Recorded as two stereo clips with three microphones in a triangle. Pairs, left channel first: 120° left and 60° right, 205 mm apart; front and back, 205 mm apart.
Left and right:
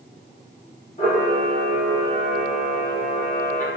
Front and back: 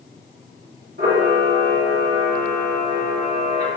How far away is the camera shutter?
About 1.6 m.